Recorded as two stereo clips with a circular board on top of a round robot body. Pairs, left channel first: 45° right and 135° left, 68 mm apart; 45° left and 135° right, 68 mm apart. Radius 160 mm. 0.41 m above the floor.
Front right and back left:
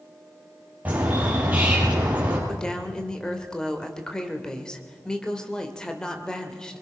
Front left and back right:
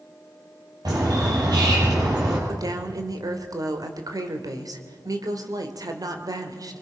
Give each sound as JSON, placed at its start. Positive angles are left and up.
{"t": 0.8, "sound": "a bird", "azimuth_deg": -160, "distance_m": 7.5}
{"t": 2.5, "sound": "a woman speaking", "azimuth_deg": -125, "distance_m": 2.5}